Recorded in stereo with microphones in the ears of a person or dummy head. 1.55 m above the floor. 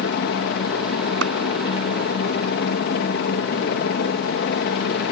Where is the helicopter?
55° left (ahead or behind).